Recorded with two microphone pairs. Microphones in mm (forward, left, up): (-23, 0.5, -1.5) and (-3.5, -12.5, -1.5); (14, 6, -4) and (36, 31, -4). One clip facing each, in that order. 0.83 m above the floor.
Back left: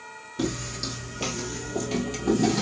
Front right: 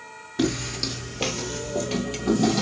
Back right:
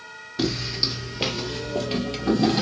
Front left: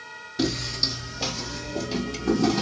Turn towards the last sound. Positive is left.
turn(degrees=-105)